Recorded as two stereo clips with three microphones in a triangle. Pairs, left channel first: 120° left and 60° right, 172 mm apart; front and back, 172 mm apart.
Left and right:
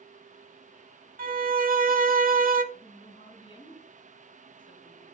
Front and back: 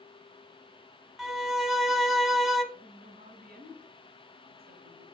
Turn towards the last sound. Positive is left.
turn(degrees=175)